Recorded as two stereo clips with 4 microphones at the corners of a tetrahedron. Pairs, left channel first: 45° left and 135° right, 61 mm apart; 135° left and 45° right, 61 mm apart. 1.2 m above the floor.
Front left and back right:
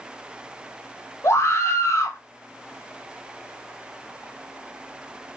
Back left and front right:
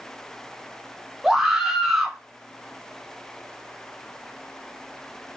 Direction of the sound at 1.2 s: 35° left.